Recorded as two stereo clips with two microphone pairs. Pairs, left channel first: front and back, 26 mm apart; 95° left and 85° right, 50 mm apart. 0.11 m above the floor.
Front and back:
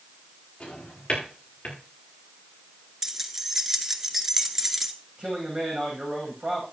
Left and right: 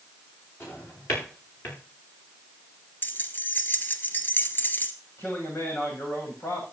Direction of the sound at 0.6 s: 55° left.